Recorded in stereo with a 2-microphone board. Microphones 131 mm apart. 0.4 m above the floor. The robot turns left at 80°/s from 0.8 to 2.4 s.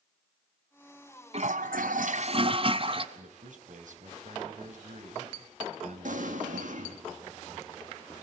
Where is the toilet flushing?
50° right, 1.0 m; by 3.0 s 135° right, 1.0 m.